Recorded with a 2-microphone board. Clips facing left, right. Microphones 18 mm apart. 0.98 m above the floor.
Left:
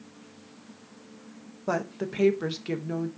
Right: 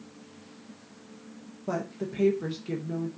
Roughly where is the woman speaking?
Left.